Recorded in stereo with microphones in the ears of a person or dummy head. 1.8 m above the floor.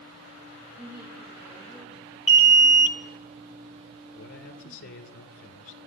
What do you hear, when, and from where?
0.8 s a woman speaking: 10° right (ahead or behind), 6 m
2.3 s an alarm: 10° right (ahead or behind), 1.0 m
4.2 s a man speaking: 75° left (ahead or behind), 1.6 m